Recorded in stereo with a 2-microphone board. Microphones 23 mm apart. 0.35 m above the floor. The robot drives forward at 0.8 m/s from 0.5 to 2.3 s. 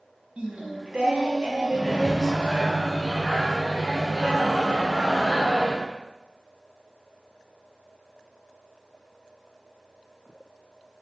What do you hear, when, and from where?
0.4 s singing: 85° right, 0.5 m; by 2.7 s 20° right (ahead or behind), 1.5 m
1.7 s a microwave: centre (ahead or behind), 1.4 m